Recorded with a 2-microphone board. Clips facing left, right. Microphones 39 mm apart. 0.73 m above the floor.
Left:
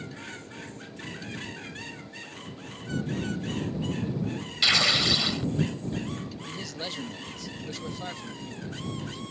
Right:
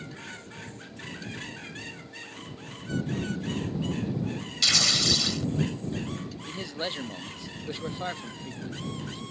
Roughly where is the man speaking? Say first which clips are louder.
Right 5 dB; right.